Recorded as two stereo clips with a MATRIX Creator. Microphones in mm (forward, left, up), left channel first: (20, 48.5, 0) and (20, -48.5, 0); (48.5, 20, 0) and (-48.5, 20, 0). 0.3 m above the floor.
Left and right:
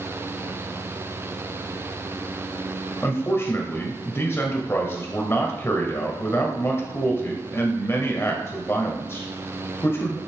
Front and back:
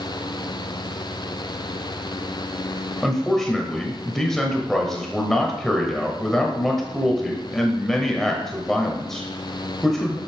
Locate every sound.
3.0 s a man speaking: 80° left, 1.6 m